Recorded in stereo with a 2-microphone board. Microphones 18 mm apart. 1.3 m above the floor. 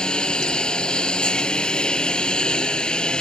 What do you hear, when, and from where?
0.0 s a lawn mower: 60° left (ahead or behind)